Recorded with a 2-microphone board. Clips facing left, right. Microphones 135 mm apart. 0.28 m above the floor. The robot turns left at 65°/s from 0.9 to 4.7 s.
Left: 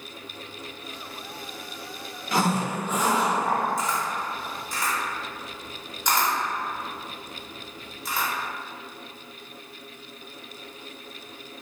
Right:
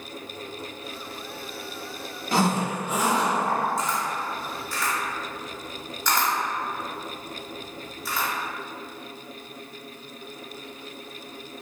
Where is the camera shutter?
25° right (ahead or behind), 1.0 m; by 8.3 s 20° left (ahead or behind), 1.0 m.